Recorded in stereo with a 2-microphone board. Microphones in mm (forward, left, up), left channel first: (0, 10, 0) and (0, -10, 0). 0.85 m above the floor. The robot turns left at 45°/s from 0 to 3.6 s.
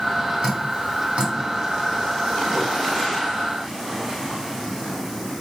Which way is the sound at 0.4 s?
50° right (ahead or behind).